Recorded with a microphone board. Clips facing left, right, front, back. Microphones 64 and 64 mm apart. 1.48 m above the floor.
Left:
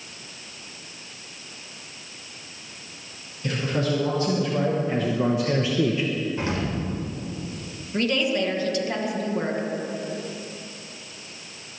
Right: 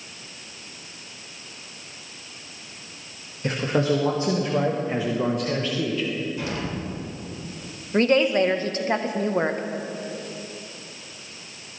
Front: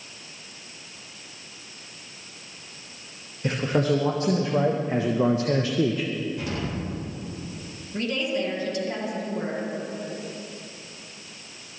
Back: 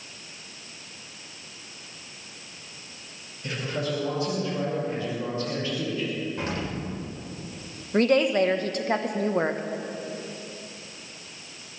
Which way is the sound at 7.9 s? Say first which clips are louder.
Right 5 dB, back 7 dB; 145° right.